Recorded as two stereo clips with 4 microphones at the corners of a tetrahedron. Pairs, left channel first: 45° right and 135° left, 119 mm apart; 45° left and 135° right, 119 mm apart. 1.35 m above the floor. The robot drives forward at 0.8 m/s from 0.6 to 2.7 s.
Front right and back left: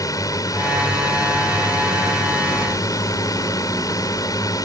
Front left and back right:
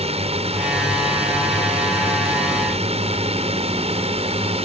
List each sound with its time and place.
0.0 s a drone: 105° right